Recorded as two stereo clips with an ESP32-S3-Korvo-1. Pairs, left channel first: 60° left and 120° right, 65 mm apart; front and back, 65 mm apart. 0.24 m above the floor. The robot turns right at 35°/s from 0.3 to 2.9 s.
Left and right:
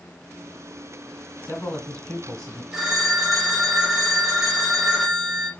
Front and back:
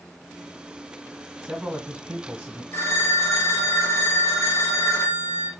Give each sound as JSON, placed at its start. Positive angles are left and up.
{"t": 1.4, "sound": "a man speaking", "azimuth_deg": 105, "distance_m": 1.3}
{"t": 2.7, "sound": "a phone ringing", "azimuth_deg": -40, "distance_m": 1.9}